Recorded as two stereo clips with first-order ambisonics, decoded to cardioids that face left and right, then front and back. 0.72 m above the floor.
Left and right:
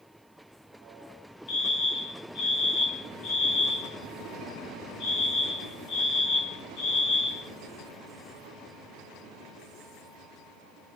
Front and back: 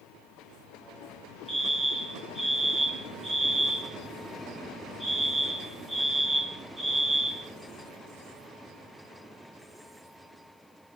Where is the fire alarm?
110° left, 3 m.